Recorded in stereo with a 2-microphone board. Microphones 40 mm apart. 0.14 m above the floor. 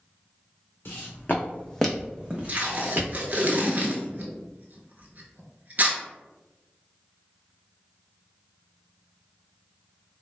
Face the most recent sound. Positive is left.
turn(degrees=-45)  # may be behind; listen again after turning